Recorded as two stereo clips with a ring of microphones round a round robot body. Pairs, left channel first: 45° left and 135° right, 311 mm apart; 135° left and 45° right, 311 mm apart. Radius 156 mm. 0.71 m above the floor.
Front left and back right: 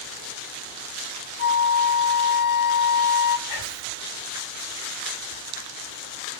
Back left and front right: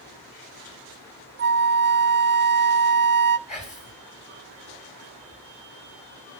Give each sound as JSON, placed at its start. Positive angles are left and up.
{"t": 1.4, "sound": "a flute", "azimuth_deg": 0, "distance_m": 0.8}
{"t": 3.5, "sound": "whispering", "azimuth_deg": 65, "distance_m": 7.0}